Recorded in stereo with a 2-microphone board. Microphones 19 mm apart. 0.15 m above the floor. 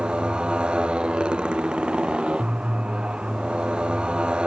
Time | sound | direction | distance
0.0 | a motorcycle | 75° right (ahead or behind) | ?